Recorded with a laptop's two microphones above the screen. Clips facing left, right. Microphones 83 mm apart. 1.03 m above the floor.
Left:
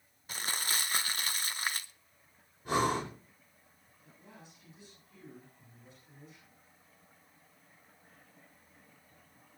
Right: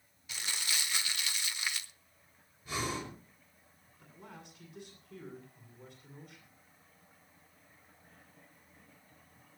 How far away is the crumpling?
About 0.9 m.